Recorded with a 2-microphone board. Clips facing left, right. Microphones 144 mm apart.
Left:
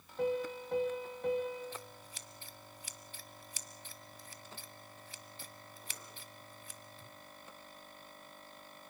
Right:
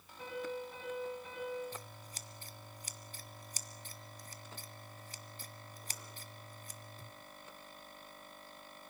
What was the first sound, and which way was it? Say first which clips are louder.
A piano: left 7 dB; 60° left (ahead or behind).